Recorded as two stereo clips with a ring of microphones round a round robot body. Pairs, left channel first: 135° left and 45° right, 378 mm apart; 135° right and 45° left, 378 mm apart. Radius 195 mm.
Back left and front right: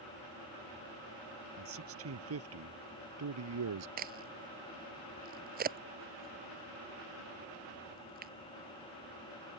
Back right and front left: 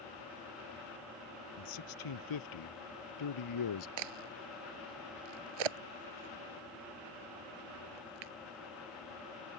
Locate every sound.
1.6 s a man speaking: 100° right; by 3.9 s 95° right
4.0 s a crack: 25° left